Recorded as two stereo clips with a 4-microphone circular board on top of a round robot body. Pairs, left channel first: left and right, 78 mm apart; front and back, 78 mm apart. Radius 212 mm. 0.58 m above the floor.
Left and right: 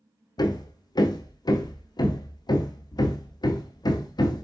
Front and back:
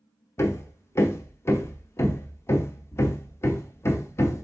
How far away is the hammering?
About 0.8 m.